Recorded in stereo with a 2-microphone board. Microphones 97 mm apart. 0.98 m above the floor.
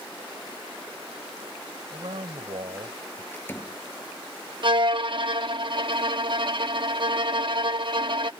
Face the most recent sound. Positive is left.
turn(degrees=-55)  # may be behind; listen again after turning